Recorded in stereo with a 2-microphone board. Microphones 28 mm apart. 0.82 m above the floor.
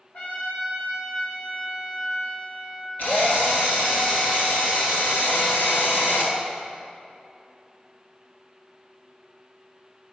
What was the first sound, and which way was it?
A trumpet, 65° left (ahead or behind).